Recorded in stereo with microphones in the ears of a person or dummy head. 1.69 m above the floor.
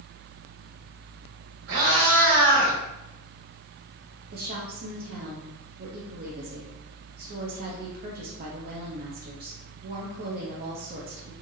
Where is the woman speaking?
50° right (ahead or behind), 0.8 m.